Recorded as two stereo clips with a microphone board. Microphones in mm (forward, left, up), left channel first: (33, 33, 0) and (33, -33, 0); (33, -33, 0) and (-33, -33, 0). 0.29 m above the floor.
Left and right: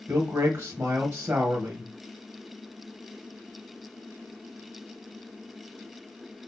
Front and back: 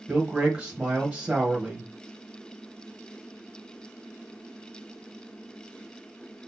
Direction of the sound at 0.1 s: 115° right.